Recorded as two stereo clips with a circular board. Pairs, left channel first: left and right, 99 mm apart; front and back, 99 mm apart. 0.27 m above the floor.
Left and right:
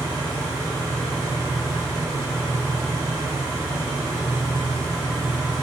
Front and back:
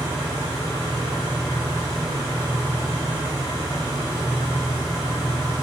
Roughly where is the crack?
I don't hear a crack.